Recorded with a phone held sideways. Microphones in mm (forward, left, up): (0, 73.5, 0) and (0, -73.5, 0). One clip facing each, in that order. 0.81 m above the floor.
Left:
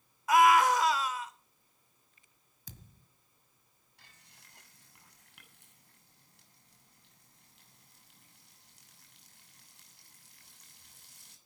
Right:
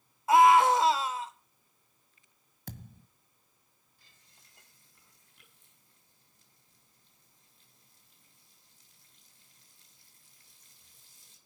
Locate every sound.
0.3 s a scream: 30° right (ahead or behind), 3.5 m
2.7 s a thud: 65° right (ahead or behind), 1.7 m
4.0 s frying: 75° left (ahead or behind), 8 m